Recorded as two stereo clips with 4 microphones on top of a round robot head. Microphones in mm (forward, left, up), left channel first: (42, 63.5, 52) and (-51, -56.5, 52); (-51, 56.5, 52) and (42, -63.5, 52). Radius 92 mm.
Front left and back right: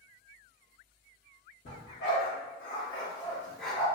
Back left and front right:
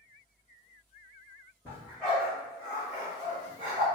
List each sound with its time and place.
1.6 s a dog barking: 45° left, 1.8 m; by 3.9 s 55° right, 0.9 m